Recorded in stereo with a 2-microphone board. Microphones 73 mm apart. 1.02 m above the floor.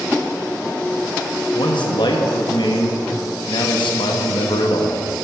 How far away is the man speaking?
About 1.0 m.